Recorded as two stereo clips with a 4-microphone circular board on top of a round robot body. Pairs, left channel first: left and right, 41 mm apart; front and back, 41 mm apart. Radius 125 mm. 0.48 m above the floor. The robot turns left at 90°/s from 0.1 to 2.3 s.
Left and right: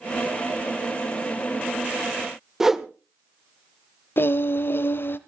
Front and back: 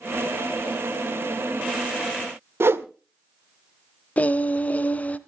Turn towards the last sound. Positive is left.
turn(degrees=55)